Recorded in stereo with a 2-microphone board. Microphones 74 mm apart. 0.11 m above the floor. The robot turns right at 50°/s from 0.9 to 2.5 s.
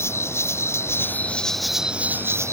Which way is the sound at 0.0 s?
145° left.